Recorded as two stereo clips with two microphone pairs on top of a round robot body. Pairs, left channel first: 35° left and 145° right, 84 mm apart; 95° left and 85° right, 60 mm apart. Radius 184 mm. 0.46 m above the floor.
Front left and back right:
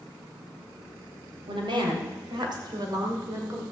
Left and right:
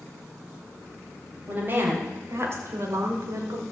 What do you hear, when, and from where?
1.5 s a woman speaking: 140° right, 3.5 m; by 3.6 s 90° right, 2.5 m